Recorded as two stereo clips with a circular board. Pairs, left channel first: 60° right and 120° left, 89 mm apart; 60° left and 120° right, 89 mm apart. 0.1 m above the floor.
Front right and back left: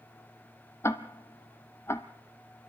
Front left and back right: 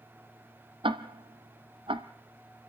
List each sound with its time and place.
0.8 s ticking: 120° right, 1.0 m